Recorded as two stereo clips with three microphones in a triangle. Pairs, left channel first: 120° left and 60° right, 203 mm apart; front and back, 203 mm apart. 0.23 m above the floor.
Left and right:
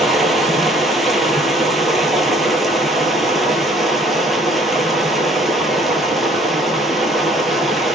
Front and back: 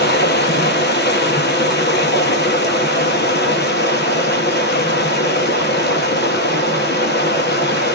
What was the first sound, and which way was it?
Running water, 30° left.